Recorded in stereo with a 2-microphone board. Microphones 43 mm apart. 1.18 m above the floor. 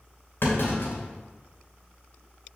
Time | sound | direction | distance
0.4 | a clunk | 60° left (ahead or behind) | 2.5 m